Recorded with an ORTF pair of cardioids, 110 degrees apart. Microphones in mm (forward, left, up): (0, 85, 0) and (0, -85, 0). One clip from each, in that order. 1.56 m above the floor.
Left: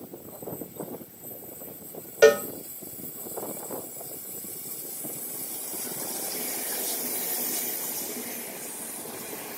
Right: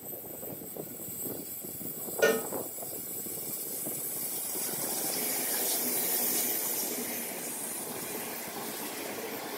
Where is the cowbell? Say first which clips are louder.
Left 9 dB; 50° left, 0.9 m.